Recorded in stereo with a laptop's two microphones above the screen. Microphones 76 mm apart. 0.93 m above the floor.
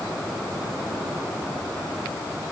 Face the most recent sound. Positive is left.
No sound to turn to.